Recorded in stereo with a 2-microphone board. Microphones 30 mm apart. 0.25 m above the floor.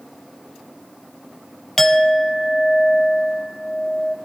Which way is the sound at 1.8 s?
10° left (ahead or behind).